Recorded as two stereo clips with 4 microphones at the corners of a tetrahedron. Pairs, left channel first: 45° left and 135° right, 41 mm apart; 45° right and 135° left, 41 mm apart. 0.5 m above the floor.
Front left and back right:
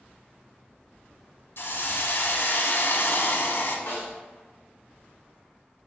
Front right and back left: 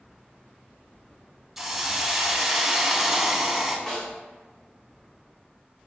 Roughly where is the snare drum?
Ahead left.